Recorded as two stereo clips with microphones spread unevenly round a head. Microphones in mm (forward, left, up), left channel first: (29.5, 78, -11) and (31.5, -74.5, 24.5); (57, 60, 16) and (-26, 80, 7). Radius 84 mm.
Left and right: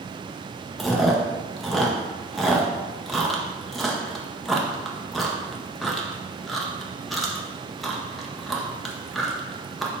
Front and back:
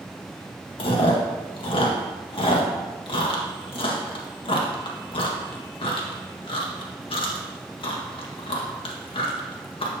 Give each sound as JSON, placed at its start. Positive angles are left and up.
{"t": 0.8, "sound": "chewing", "azimuth_deg": 0, "distance_m": 1.7}